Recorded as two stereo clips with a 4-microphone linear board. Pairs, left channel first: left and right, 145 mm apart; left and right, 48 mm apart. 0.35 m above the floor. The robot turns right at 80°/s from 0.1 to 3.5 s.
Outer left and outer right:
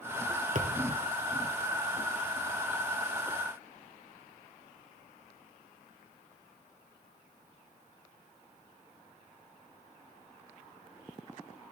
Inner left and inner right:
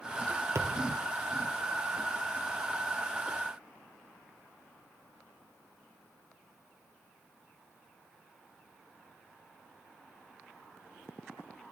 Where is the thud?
70° right (ahead or behind), 1.6 m; by 1.0 s 75° right (ahead or behind), 1.6 m.